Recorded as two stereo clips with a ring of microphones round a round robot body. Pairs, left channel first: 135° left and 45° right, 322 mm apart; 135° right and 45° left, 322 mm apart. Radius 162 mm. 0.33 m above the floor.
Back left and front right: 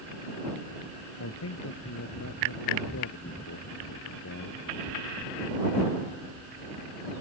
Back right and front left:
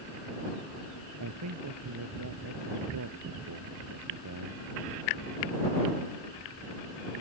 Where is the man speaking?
85° left.